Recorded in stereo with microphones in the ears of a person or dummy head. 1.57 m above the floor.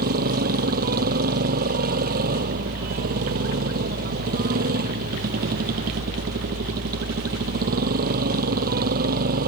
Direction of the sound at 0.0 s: 50° right (ahead or behind).